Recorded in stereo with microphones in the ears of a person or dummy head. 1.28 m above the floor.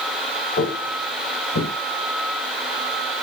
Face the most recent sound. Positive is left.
turn(degrees=70)  # may be behind; listen again after turning